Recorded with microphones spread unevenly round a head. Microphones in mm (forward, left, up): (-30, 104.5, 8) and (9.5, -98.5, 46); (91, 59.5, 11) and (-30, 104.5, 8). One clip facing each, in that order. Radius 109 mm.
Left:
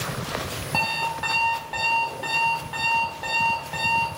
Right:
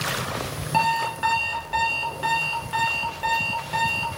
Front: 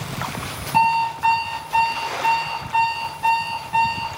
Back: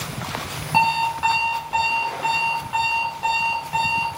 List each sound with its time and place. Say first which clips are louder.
0.7 s an alarm clock: right 6 dB, front 2 dB; 140° right, 0.6 m